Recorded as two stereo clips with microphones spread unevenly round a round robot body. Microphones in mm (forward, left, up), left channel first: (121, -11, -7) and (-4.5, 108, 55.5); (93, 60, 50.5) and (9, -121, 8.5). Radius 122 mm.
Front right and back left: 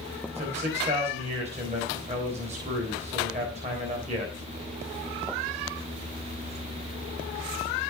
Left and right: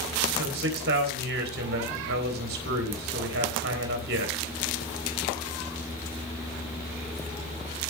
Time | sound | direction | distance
0.3 | a man speaking | 155° right | 3.5 m